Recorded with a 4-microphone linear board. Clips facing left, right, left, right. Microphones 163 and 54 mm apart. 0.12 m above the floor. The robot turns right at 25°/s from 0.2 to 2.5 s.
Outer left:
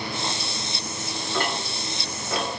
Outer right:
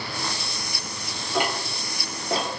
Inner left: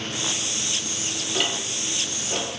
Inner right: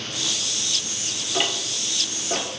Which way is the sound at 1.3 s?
15° right (ahead or behind).